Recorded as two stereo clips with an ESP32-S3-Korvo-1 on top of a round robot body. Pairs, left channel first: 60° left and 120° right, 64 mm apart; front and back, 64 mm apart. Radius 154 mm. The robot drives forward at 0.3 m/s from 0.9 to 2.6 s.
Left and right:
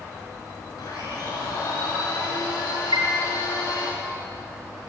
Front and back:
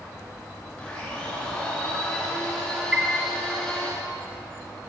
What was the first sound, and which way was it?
A blender, 75° left.